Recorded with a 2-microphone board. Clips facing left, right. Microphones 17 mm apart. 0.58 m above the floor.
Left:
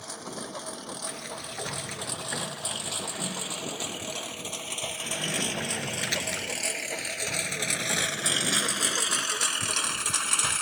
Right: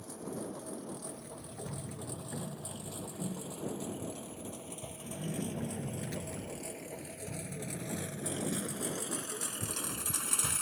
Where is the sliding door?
80° left.